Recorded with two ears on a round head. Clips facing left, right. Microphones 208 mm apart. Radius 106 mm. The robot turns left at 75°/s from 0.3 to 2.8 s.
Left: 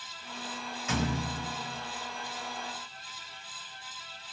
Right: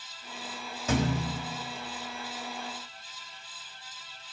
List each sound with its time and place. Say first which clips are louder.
0.9 s a thud: right 4 dB; 30° right, 1.7 m; by 1.5 s 80° right, 1.7 m